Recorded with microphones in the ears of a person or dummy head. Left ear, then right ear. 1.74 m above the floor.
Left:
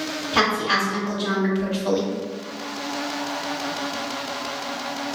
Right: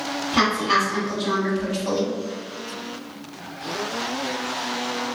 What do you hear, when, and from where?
0.3 s a woman speaking: 40° left (ahead or behind), 1.5 m; by 2.1 s centre (ahead or behind), 0.5 m